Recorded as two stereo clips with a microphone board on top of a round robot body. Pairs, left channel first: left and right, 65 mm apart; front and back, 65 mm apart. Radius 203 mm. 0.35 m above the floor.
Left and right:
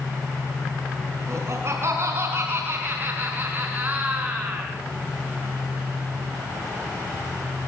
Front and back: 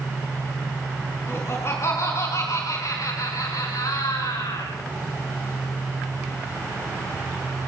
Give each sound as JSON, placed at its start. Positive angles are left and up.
{"t": 1.3, "sound": "laughter", "azimuth_deg": -50, "distance_m": 5.0}